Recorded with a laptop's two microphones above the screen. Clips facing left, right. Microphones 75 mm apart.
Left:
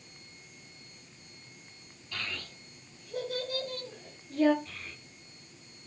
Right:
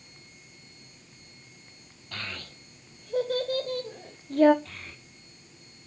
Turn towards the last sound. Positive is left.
turn(degrees=-75)  # may be behind; listen again after turning